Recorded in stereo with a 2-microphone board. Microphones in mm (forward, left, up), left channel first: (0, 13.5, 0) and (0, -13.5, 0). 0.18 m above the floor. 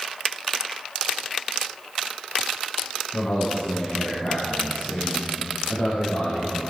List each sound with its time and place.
3.1 s a man speaking: 75° left (ahead or behind), 5 m; by 6.7 s 70° left (ahead or behind), 4 m